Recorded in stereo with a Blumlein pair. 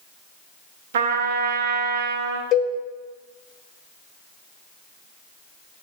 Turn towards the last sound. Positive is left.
turn(degrees=30)